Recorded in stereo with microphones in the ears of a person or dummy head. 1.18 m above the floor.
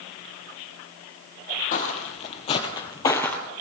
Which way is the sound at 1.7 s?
45° left (ahead or behind).